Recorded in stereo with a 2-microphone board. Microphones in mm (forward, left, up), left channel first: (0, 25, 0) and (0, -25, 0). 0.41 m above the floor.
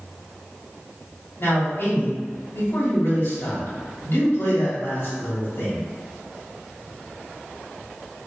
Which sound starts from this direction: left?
A man speaking, at 1.4 s.